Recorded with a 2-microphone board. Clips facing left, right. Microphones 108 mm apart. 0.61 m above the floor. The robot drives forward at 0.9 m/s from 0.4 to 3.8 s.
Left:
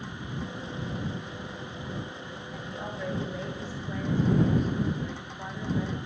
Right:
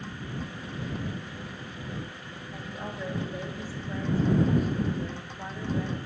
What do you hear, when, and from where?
2.5 s a woman speaking: centre (ahead or behind), 3.5 m; by 6.0 s 5° left (ahead or behind), 2 m